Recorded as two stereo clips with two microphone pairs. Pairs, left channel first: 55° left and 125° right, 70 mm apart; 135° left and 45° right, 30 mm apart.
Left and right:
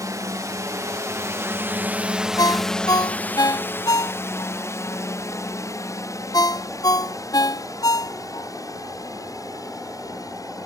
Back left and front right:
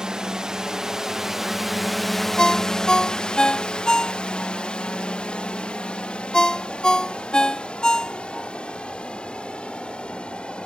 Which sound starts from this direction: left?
A ringtone, at 2.4 s.